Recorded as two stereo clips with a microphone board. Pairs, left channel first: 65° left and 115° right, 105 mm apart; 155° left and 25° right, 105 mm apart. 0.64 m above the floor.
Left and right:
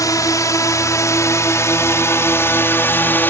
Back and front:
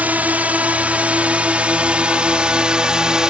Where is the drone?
45° left.